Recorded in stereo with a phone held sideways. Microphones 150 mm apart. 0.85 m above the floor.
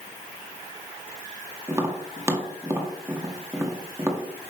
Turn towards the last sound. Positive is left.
turn(degrees=-20)  # may be behind; listen again after turning